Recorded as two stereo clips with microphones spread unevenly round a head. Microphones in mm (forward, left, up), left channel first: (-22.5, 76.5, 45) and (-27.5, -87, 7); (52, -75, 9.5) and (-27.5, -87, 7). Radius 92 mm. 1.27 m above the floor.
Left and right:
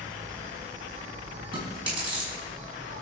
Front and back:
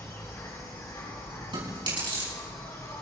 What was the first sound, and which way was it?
An insect, 35° right.